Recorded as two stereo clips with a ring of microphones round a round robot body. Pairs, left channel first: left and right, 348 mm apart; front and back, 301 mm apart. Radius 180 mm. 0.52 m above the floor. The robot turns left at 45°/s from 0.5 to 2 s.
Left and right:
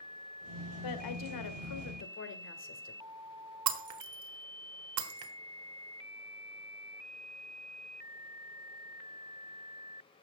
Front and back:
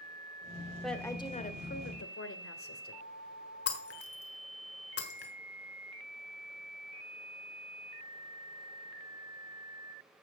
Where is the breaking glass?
55° right, 1.4 m.